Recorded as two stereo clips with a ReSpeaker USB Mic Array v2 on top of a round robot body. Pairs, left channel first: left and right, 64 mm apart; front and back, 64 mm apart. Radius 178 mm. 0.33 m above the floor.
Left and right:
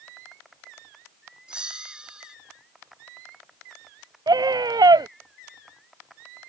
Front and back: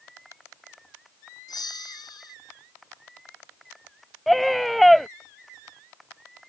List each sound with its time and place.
1.5 s a bell: 15° right
4.3 s a scream: 90° right